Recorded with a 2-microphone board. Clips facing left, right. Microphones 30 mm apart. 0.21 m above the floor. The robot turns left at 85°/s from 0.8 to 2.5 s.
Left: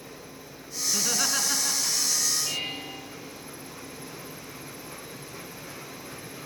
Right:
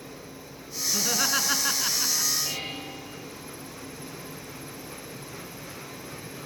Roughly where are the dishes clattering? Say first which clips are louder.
Left 1 dB; centre.